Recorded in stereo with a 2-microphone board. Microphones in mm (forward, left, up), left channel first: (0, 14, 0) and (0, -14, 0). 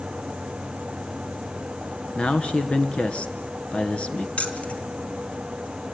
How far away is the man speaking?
About 2.5 m.